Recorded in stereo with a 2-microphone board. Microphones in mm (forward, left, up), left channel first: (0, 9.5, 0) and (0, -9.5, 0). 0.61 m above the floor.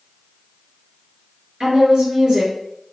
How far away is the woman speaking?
About 1.7 m.